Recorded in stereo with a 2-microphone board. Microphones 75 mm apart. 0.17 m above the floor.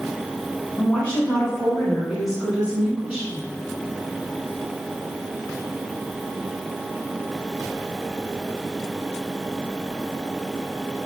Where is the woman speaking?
20° left (ahead or behind), 1.5 m; by 3.4 s 25° right (ahead or behind), 1.9 m.